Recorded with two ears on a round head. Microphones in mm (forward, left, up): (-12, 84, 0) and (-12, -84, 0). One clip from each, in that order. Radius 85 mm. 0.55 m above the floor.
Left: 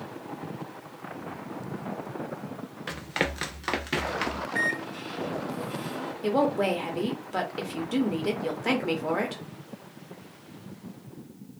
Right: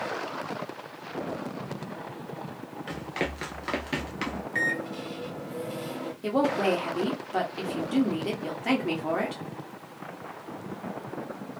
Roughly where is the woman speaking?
Centre.